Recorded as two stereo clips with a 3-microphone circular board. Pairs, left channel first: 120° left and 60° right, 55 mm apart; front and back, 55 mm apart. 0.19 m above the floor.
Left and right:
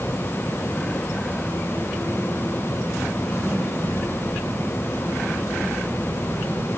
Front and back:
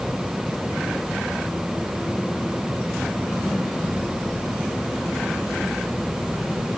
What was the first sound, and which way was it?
Only background noise.